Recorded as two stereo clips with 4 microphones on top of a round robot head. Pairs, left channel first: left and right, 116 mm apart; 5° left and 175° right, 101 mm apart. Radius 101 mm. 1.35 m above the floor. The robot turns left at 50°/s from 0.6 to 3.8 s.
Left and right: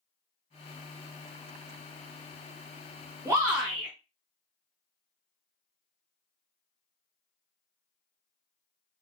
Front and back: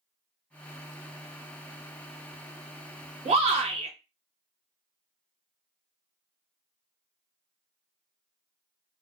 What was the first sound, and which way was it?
A shout, 155° right.